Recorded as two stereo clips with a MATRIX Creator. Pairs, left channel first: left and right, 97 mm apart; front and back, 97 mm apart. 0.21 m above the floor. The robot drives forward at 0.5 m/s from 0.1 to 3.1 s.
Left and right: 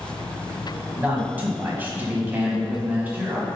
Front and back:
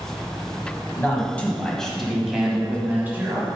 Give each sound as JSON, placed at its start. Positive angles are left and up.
{"t": 0.9, "sound": "a man speaking", "azimuth_deg": -40, "distance_m": 1.5}